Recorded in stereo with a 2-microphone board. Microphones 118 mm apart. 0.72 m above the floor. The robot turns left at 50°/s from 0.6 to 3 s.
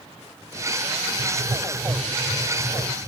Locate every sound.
1.2 s writing: 115° right, 0.7 m; by 3.1 s 155° left, 0.7 m